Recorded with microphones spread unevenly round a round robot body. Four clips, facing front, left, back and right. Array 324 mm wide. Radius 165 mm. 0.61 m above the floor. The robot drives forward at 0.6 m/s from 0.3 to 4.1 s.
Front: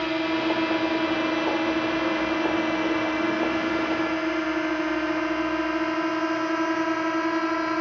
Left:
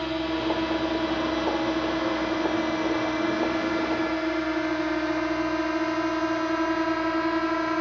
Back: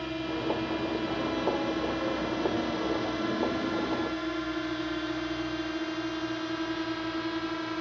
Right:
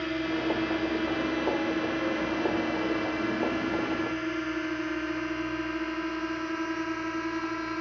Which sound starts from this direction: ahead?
A drone, at 0.0 s.